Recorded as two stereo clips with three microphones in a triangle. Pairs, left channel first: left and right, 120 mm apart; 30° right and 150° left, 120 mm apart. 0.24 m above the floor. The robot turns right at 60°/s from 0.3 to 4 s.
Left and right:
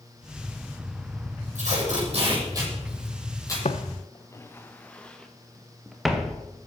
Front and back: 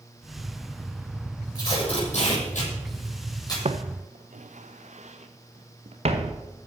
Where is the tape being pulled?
90° right, 8 m; by 3.5 s 30° left, 8 m.